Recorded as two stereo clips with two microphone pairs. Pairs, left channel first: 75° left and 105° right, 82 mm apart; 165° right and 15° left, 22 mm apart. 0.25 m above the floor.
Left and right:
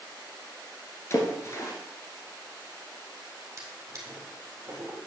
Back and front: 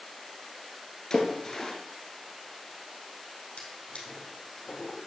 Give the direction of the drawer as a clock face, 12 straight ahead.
5 o'clock.